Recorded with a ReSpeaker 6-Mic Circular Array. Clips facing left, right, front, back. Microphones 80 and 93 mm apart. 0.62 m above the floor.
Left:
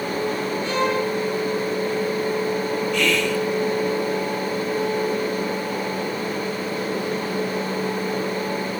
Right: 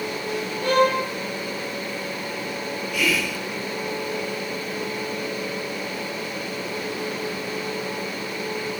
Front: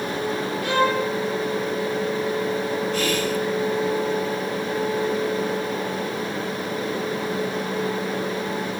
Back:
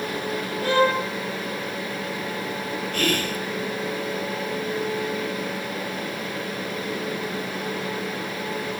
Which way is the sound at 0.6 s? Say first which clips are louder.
Right 5 dB, back 1 dB; 125° right.